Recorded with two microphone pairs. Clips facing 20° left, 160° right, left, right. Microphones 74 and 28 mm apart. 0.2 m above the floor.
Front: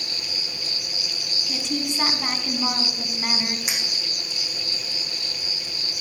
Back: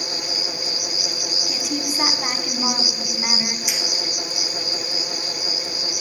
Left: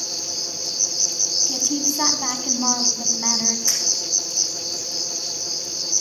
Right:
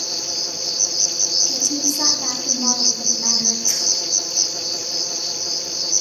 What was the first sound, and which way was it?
An insect, 100° right.